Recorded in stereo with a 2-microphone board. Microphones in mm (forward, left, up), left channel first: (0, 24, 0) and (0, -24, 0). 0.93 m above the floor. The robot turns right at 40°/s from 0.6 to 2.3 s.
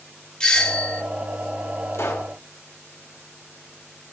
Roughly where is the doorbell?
Centre.